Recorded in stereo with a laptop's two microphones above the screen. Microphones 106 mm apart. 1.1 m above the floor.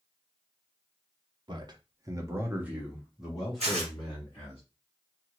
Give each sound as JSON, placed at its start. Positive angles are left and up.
{"t": 1.5, "sound": "a man speaking", "side_deg": -45, "distance_m": 0.8}
{"t": 3.6, "sound": "tearing paper", "side_deg": -80, "distance_m": 1.0}